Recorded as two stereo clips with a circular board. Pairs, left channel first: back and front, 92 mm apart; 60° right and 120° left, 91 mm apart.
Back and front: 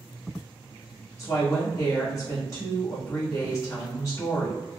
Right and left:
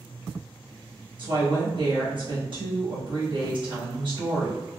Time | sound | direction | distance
1.2 | a woman speaking | 130° left | 1.2 m